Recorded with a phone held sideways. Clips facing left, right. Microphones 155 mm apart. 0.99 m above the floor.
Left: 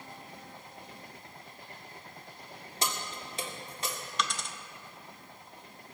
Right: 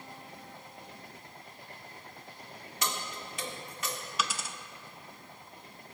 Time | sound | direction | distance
2.8 | keys jangling | 30° left (ahead or behind) | 1.8 m
4.2 | a dropped coin | 5° right (ahead or behind) | 0.7 m